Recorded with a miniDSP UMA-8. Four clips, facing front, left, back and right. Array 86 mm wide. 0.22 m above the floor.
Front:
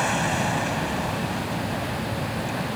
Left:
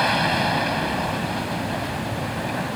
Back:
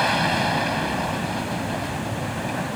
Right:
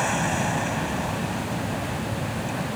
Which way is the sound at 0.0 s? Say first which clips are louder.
Left 4 dB, back 3 dB; 125° left.